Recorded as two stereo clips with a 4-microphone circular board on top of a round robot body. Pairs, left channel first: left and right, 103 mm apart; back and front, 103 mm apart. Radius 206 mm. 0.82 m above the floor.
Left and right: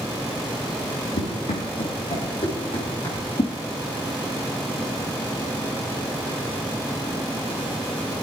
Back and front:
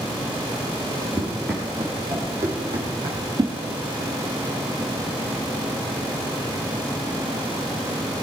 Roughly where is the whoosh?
Ahead left.